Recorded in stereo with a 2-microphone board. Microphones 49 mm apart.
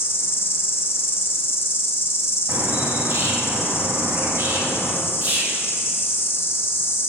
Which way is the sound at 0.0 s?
50° left (ahead or behind).